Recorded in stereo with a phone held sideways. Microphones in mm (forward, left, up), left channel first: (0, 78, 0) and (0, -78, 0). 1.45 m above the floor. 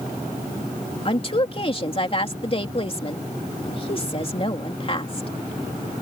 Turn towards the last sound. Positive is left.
turn(degrees=40)  # may be behind; listen again after turning